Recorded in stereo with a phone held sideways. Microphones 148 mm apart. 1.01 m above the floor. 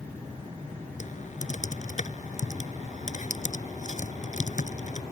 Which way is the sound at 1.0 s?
55° left (ahead or behind).